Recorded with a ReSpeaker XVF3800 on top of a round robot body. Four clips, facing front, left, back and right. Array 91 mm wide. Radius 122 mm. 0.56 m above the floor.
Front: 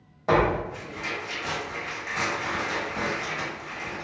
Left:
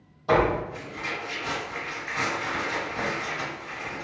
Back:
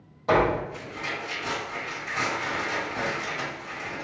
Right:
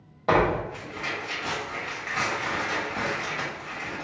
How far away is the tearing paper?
About 1.4 m.